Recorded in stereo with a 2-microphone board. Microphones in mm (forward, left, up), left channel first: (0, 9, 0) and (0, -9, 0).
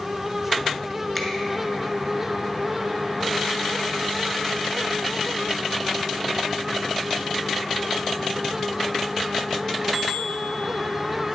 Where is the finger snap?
5° right (ahead or behind), 1.1 m.